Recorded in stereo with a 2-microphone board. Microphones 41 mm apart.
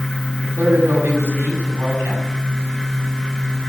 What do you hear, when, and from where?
0.4 s a man speaking: 75° right (ahead or behind), 5.5 m